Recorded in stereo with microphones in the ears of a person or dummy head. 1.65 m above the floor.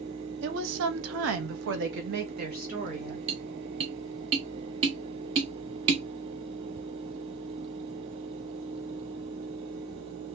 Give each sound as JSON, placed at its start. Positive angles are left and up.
{"t": 0.4, "sound": "a woman speaking", "side_deg": -60, "distance_m": 1.0}
{"t": 3.3, "sound": "tapping", "side_deg": -30, "distance_m": 0.8}